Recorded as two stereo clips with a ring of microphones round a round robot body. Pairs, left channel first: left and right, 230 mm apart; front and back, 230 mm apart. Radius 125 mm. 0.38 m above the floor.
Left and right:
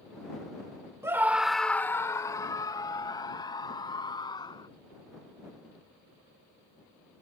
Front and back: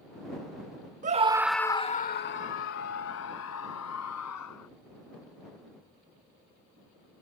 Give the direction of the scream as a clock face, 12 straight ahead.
5 o'clock.